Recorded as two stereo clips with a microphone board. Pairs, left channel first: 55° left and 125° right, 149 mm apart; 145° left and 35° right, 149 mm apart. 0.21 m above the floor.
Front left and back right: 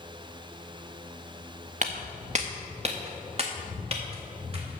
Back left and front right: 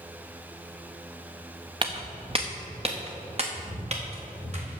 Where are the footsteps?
90° right, 1.0 m; by 4.8 s 75° right, 3 m.